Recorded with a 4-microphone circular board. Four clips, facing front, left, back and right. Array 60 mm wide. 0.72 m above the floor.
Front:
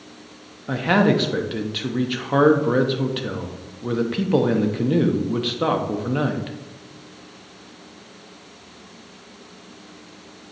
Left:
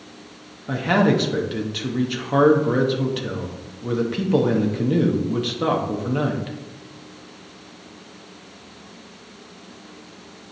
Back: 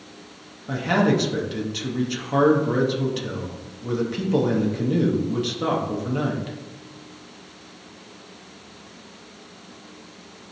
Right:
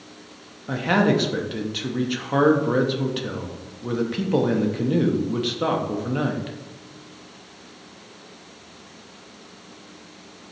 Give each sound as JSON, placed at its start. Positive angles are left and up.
{"t": 0.7, "sound": "a man speaking", "azimuth_deg": 0, "distance_m": 0.8}